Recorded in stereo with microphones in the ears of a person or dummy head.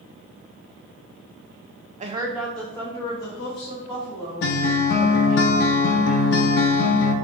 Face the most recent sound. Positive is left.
turn(degrees=60)  # may be behind; listen again after turning